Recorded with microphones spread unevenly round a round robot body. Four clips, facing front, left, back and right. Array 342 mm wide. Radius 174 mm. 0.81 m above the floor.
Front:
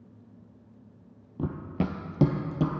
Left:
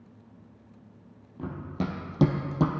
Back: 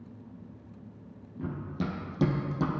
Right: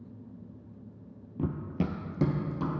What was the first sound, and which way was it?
Running footsteps, 30° right.